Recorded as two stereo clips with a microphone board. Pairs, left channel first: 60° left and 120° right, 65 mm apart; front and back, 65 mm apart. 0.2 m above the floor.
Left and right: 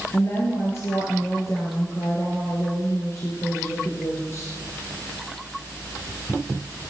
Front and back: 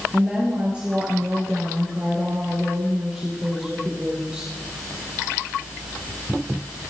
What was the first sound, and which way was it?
A woman speaking, 105° left.